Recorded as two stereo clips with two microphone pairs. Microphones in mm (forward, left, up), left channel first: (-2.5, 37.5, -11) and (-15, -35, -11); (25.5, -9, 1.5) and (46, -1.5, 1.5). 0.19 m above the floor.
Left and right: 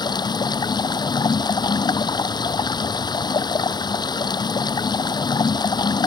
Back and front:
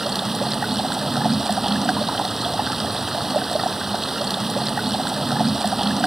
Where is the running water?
95° left.